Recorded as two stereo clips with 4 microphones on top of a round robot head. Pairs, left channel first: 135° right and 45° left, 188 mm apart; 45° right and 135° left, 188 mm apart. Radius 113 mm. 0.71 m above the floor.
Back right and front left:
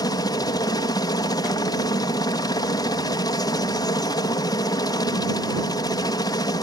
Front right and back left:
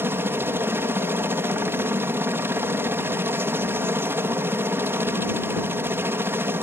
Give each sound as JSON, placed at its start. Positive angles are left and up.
{"t": 0.0, "sound": "a helicopter", "azimuth_deg": -165}